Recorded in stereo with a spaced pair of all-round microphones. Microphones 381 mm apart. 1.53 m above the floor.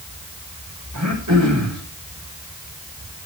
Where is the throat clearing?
45° right (ahead or behind), 5.5 m.